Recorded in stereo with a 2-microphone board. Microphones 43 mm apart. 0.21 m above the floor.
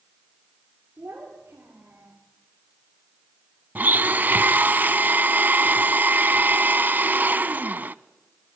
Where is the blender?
50° right (ahead or behind), 0.6 m.